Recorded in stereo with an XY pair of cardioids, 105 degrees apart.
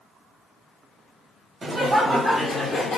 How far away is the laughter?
About 0.9 m.